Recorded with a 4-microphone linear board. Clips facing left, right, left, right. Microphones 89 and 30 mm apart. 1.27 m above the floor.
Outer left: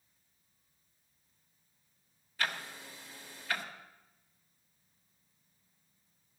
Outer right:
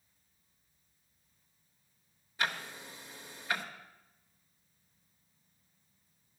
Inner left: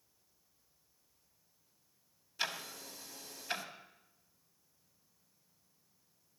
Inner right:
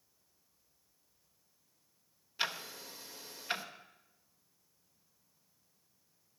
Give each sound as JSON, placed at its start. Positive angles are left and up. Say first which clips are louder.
{"t": 2.4, "sound": "ticking", "louder": "outer right 1 dB, inner right 2 dB", "side_deg": -20, "distance_m": 1.2}